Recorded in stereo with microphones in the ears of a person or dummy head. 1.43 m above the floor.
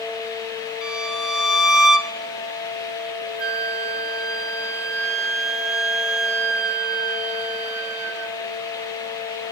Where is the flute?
15° right (ahead or behind), 0.9 m.